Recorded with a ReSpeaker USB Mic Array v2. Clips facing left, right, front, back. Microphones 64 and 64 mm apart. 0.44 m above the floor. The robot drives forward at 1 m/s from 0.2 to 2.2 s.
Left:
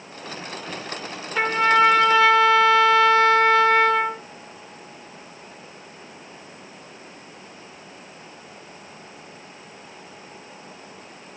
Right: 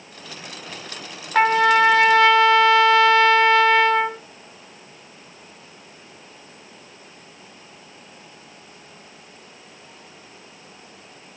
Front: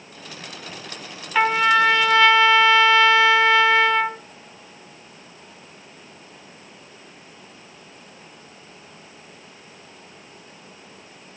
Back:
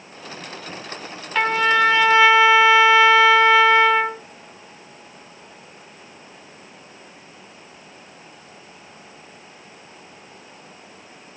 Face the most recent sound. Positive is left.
turn(degrees=-105)